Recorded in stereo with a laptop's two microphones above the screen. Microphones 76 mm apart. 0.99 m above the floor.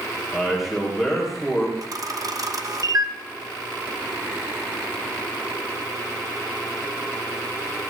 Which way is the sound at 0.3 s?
5° right (ahead or behind).